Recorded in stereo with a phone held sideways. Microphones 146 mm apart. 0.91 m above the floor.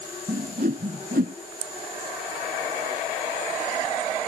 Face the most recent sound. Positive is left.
turn(degrees=-80)